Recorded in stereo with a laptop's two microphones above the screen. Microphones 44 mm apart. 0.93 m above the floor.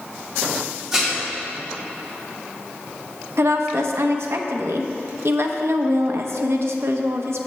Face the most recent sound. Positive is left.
turn(degrees=-65)  # may be behind; listen again after turning